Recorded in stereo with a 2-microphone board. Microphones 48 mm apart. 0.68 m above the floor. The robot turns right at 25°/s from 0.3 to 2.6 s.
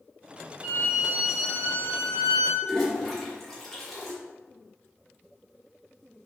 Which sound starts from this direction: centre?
A toilet flushing, at 2.6 s.